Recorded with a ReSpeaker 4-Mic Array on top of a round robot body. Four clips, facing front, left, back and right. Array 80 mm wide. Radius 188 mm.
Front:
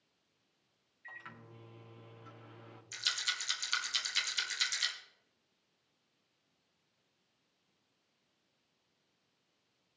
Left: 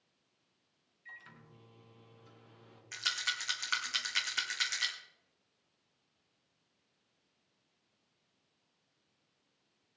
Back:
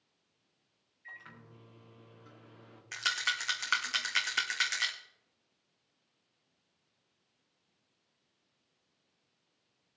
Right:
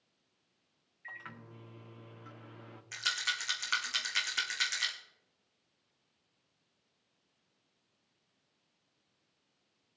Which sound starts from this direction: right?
A microwave, at 1.0 s.